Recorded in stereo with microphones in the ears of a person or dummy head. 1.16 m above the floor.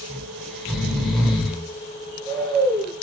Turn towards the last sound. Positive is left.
turn(degrees=5)  # may be behind; listen again after turning